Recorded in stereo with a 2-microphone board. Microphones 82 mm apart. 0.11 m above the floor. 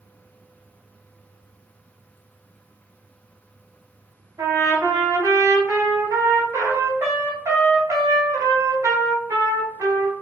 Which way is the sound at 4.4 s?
40° right (ahead or behind).